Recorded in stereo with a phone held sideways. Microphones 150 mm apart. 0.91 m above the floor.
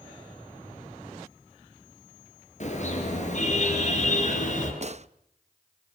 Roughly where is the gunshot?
Right.